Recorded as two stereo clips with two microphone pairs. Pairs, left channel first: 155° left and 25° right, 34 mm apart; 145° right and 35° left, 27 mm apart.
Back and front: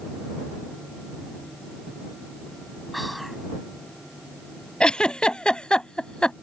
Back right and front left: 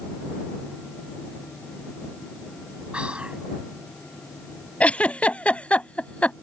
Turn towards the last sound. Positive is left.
turn(degrees=-145)